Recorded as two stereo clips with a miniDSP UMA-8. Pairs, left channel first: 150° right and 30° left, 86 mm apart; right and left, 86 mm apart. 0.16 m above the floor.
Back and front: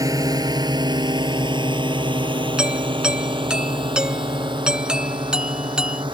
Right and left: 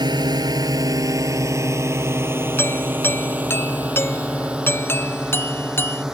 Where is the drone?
70° left; by 6.2 s 10° left.